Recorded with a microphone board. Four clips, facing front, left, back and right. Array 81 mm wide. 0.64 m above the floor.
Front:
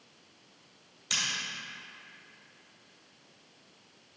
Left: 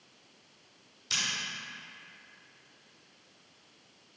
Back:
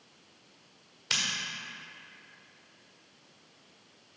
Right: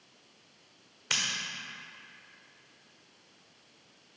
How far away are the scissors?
About 1.3 m.